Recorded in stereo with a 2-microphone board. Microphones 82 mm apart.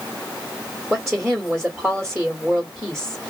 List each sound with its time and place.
0.9 s a woman speaking: 10° right (ahead or behind), 1.2 m